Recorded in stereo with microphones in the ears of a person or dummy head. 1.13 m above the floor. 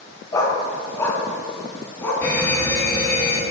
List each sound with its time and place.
0.3 s a dog barking: 25° left (ahead or behind), 2 m; by 2.1 s 15° left (ahead or behind), 4.5 m
2.2 s a fire alarm: 5° left (ahead or behind), 3.5 m